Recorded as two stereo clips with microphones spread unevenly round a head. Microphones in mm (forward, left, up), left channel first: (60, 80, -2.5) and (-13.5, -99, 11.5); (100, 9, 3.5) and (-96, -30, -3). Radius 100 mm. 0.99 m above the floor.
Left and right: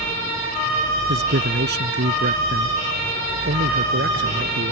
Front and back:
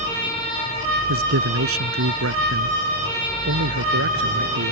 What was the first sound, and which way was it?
A man speaking, 155° right.